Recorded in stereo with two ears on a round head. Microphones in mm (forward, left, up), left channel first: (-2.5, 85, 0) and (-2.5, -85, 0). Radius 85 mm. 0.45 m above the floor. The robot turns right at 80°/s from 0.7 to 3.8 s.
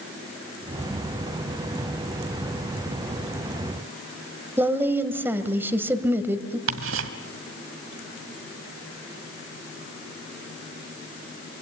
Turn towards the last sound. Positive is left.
turn(degrees=-70)  # may be behind; listen again after turning